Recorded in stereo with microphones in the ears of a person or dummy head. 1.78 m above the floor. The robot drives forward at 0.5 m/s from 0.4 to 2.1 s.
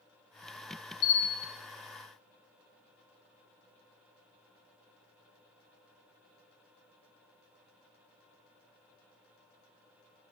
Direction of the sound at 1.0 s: 70° left (ahead or behind).